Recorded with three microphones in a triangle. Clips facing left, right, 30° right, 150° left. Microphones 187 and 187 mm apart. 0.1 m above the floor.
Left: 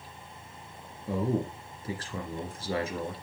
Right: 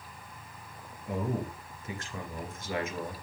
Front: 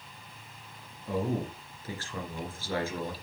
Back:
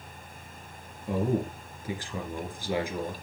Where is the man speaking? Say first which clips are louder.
Left 4 dB, back 3 dB; 90° left, 2 m.